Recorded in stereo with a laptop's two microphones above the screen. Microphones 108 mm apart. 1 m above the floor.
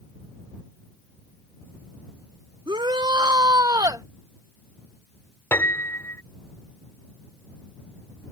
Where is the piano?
25° left (ahead or behind).